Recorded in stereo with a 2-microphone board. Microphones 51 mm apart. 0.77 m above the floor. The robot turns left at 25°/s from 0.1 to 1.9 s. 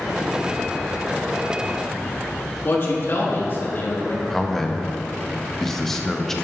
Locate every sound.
2.6 s a man speaking: 50° left (ahead or behind), 1.4 m
4.3 s a man speaking: 5° left (ahead or behind), 0.6 m